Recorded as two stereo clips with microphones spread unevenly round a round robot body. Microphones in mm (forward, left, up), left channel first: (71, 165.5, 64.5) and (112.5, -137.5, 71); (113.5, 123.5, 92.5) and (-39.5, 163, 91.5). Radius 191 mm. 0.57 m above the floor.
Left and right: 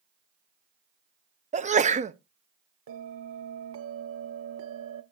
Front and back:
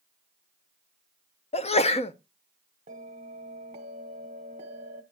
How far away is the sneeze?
About 0.8 m.